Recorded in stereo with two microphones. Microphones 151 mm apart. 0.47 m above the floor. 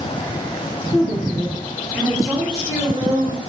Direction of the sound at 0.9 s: 25° left (ahead or behind).